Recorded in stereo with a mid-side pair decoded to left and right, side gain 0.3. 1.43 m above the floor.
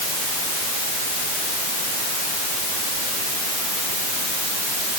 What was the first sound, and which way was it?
Only background noise.